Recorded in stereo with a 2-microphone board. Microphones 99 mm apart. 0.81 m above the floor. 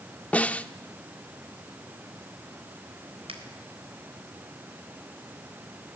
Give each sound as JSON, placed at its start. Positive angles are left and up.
{"t": 0.3, "sound": "a snare drum", "side_deg": 15, "distance_m": 0.6}
{"t": 3.3, "sound": "a finger snap", "side_deg": -80, "distance_m": 3.5}